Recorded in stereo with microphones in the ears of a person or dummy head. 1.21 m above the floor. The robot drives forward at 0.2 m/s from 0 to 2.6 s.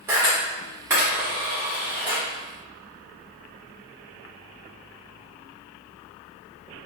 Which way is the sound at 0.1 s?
15° right (ahead or behind).